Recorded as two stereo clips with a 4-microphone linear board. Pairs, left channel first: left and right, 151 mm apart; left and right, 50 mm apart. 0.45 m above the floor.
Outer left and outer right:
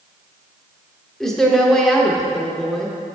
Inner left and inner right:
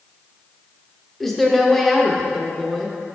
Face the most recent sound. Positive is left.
turn(degrees=5)  # may be behind; listen again after turning